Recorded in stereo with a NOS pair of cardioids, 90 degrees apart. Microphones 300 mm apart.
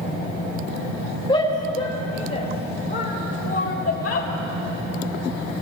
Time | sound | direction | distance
1.3 | a shout | 15° left | 3 m